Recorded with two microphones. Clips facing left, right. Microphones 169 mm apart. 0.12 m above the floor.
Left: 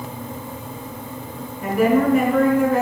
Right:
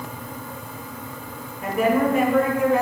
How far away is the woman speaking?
About 1.1 m.